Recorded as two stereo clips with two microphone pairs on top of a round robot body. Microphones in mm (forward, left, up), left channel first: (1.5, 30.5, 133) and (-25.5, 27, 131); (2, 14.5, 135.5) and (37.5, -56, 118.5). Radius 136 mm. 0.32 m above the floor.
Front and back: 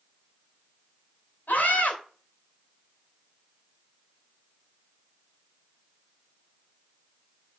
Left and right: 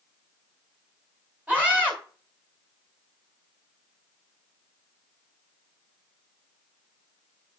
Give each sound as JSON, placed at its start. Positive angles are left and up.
{"t": 1.5, "sound": "a scream", "azimuth_deg": 5, "distance_m": 4.5}